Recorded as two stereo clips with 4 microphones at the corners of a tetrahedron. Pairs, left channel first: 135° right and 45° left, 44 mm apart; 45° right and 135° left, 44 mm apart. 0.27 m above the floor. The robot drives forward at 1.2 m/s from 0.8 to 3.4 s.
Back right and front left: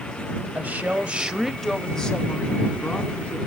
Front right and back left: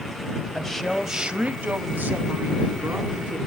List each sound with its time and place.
0.6 s a woman speaking: 40° left, 1.1 m; by 3.5 s 170° left, 3 m